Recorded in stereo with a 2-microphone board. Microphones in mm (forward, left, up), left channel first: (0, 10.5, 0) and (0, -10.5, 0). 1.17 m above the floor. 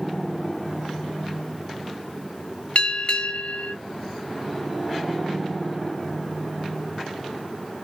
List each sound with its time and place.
2.8 s a bell: 50° left (ahead or behind), 1.2 m